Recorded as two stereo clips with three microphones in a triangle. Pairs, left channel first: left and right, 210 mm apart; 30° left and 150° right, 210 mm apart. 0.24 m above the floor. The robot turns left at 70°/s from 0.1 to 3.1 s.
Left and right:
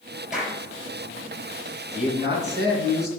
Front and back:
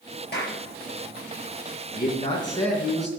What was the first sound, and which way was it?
A clap, straight ahead.